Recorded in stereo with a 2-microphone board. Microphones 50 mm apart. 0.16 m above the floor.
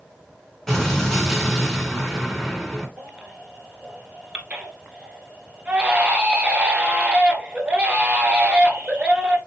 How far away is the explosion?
About 2 m.